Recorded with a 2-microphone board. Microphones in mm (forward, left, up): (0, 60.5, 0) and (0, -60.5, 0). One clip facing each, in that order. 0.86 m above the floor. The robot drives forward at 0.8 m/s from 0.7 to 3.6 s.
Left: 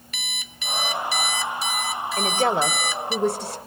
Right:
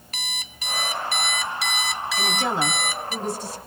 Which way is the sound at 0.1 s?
40° right (ahead or behind).